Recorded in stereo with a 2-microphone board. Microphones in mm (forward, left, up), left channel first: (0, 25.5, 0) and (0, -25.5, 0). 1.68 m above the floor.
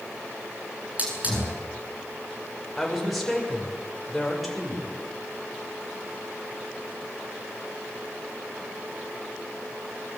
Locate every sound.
1.0 s a hiss: 30° right (ahead or behind), 9.5 m
2.8 s a woman speaking: centre (ahead or behind), 6.5 m